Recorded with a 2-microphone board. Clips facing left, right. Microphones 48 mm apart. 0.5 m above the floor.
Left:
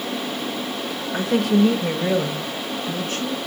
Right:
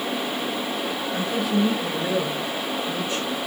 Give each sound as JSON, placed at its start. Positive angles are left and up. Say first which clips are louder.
{"t": 1.1, "sound": "a woman speaking", "louder": "left 6 dB", "side_deg": 55, "distance_m": 1.3}